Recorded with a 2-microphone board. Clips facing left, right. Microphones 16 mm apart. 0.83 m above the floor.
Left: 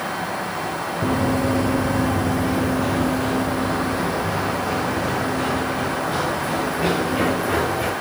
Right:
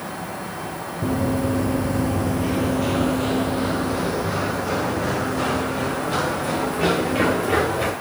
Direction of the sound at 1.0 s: 15° left (ahead or behind).